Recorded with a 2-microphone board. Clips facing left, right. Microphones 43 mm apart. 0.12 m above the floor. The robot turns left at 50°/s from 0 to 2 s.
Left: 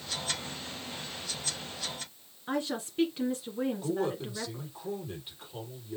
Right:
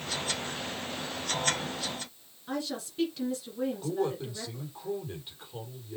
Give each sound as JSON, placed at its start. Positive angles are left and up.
{"t": 2.5, "sound": "a woman speaking", "side_deg": 25, "distance_m": 1.6}
{"t": 3.8, "sound": "a man speaking", "side_deg": 5, "distance_m": 4.5}